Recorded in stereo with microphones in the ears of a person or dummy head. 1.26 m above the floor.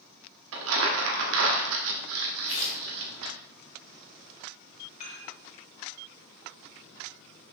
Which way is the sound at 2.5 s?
40° left (ahead or behind).